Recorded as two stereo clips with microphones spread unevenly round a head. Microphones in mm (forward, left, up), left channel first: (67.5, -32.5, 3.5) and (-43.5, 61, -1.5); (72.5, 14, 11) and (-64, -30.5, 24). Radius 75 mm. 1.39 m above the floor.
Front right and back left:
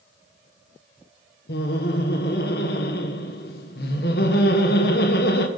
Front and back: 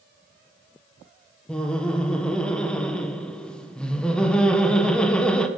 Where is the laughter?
65° right, 1.3 m.